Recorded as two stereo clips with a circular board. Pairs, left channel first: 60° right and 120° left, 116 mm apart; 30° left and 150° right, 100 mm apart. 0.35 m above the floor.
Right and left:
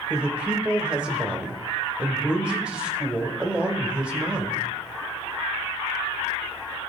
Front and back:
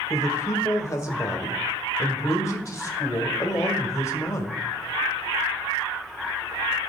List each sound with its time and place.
0.1 s a man speaking: 50° left, 1.4 m